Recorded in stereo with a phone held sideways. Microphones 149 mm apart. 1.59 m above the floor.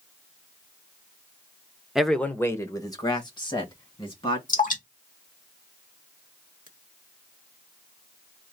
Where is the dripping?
60° left (ahead or behind), 1.7 m.